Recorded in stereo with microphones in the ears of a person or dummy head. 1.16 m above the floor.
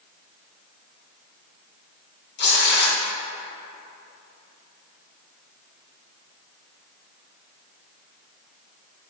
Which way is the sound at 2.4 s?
60° left (ahead or behind).